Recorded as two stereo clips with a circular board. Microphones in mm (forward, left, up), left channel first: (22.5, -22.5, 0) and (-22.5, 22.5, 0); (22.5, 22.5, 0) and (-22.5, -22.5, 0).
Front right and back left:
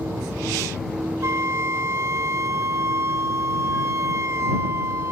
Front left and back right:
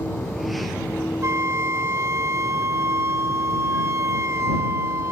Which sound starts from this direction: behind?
A flute, at 1.2 s.